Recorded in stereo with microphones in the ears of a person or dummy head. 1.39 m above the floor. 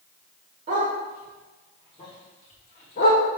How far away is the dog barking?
About 1.2 m.